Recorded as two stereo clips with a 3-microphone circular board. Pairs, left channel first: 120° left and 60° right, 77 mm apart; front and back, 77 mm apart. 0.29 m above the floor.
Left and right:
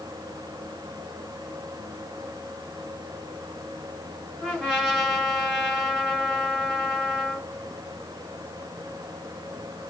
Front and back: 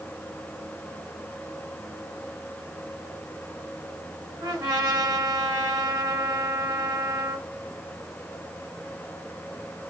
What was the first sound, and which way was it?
A trumpet, 145° right.